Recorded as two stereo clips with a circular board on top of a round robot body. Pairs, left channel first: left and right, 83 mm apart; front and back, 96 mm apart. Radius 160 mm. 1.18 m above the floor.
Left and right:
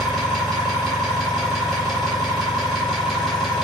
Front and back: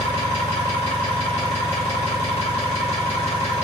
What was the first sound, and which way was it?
An engine running, straight ahead.